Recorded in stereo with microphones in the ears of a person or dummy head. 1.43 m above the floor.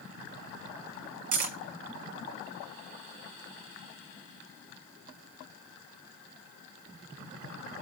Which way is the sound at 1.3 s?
55° right (ahead or behind).